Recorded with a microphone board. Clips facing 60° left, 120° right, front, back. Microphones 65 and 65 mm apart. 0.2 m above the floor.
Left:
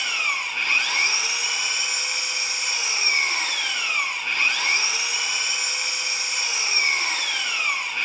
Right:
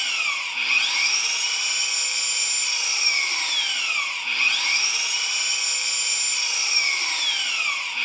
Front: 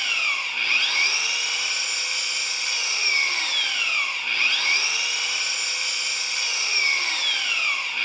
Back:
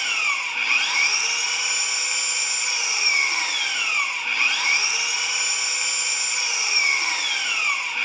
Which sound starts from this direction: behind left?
An engine running, at 0.0 s.